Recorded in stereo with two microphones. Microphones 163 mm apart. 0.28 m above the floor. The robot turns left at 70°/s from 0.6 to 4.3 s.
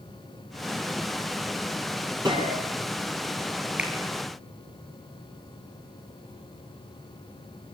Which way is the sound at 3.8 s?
10° right (ahead or behind).